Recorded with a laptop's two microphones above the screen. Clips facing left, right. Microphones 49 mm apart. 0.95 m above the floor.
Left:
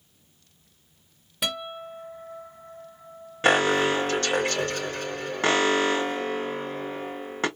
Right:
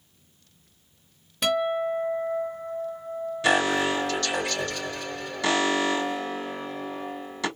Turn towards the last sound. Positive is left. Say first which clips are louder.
# left 2 dB
turn(degrees=40)  # may be behind; listen again after turning